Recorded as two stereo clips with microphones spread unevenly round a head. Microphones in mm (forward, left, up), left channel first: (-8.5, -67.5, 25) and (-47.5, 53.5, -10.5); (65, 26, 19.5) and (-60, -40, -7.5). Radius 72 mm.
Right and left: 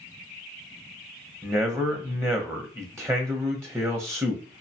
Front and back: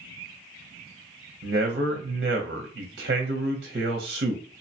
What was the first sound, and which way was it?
A man speaking, straight behind.